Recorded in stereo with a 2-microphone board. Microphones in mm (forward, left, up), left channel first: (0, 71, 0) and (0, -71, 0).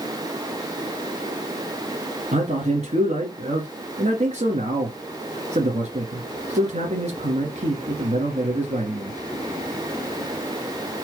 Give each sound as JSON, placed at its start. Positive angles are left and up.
{"t": 2.3, "sound": "a man speaking", "side_deg": -50, "distance_m": 2.5}